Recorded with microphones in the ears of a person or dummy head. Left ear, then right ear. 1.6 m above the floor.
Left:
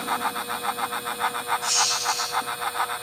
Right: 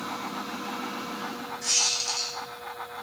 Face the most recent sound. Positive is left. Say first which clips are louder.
# even
turn(degrees=-65)  # may be behind; listen again after turning